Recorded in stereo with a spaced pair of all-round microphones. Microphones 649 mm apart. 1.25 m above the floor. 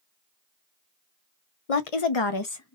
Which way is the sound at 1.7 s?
60° left (ahead or behind).